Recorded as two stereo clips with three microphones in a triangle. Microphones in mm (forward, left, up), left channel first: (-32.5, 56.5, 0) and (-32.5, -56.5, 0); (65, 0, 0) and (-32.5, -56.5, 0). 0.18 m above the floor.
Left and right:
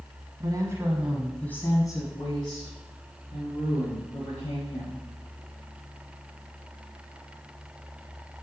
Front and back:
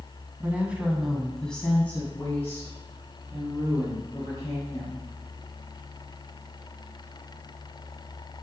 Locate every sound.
0.4 s a woman speaking: 85° right, 1.2 m; by 5.0 s 95° left, 3.5 m